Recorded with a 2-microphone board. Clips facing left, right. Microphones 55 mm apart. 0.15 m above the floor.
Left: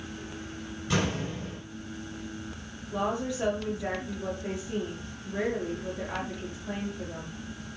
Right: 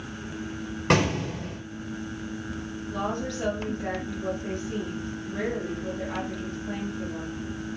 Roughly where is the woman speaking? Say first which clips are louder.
Left 1 dB; centre.